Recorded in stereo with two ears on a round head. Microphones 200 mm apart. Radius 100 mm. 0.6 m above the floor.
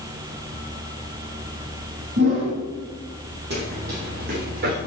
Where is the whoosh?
55° right (ahead or behind), 6 m.